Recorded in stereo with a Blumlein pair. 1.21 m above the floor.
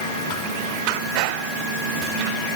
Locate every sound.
Only background noise.